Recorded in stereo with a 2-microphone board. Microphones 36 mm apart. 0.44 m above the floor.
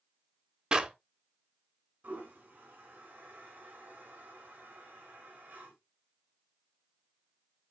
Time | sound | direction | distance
0.7 | a clap | 20° right (ahead or behind) | 1.0 m
2.0 | a toilet flushing | 40° right (ahead or behind) | 4.5 m